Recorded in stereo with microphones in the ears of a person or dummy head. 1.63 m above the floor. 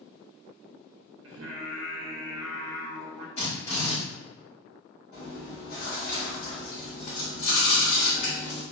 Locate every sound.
1.2 s singing: 70° right (ahead or behind), 0.5 m
3.4 s a drill: 40° left (ahead or behind), 1.3 m
5.1 s chewing: 60° left (ahead or behind), 1.3 m